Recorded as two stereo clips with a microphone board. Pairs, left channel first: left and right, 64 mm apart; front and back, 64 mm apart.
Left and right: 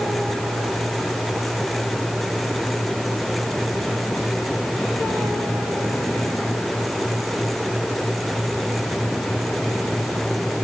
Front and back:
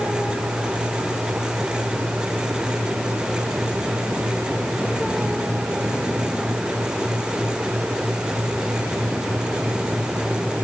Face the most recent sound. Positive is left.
No sound to turn to.